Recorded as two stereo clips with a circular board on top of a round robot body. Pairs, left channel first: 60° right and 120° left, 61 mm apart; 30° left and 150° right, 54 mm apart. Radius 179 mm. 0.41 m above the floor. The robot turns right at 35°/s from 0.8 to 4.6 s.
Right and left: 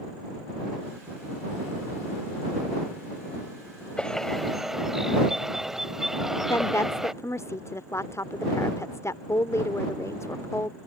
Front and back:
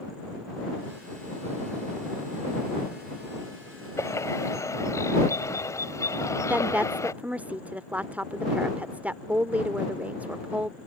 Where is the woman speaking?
90° right.